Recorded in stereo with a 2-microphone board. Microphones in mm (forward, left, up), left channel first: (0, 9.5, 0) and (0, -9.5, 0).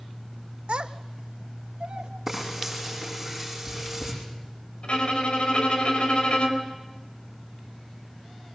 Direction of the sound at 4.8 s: 65° left (ahead or behind).